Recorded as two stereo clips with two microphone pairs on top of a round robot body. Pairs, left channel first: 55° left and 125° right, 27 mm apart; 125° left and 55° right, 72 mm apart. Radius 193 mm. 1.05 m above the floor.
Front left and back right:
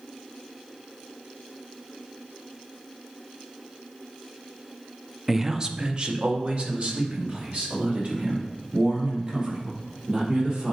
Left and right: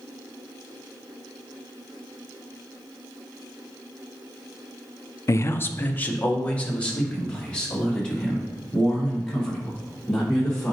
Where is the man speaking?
160° left, 0.6 m; by 10.7 s 160° right, 4.5 m.